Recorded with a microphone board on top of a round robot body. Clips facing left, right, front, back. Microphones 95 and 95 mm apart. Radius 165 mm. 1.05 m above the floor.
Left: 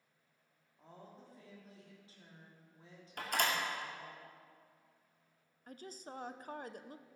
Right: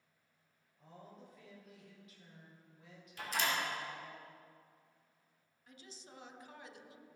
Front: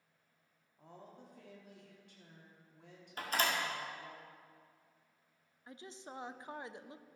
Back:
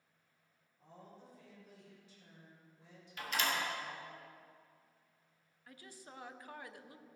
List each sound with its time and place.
0.8 s a woman speaking: 30° left, 3 m
3.2 s a door slam: 55° left, 2 m
5.7 s a woman speaking: 65° left, 0.8 m